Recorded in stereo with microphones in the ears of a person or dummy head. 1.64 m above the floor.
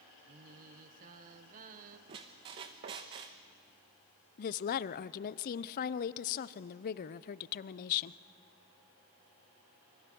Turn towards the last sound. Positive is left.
turn(degrees=50)  # may be behind; listen again after turning